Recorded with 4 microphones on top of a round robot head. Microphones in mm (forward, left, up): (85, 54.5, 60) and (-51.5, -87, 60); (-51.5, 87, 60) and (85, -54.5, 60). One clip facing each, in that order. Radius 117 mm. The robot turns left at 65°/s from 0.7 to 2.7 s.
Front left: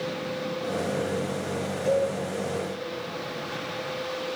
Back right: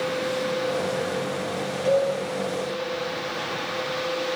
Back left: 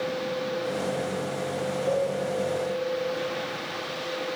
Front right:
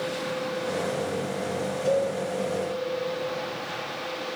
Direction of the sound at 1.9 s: 90° right.